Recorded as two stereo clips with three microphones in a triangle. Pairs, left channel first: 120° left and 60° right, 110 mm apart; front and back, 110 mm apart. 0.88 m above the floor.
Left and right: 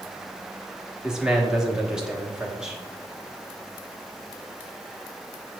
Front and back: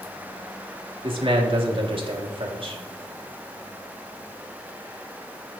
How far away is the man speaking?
About 1.2 m.